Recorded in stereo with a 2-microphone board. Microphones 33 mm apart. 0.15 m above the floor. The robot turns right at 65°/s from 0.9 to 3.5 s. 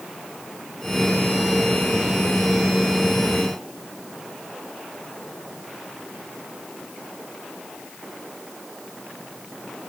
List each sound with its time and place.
Only background noise.